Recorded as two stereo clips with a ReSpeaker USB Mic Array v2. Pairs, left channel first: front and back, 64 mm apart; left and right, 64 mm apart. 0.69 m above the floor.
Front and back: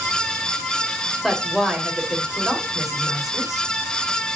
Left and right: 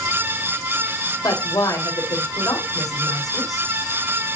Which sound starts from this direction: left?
A woman speaking, at 1.2 s.